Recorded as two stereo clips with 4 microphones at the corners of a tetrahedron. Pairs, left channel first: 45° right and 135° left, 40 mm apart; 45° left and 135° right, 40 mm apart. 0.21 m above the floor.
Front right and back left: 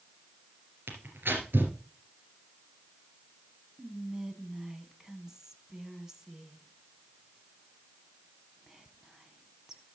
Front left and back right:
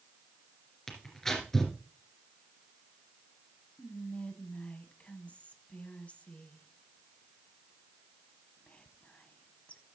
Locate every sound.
0.9 s tearing paper: 125° left, 2.5 m
3.8 s whispering: 65° left, 1.2 m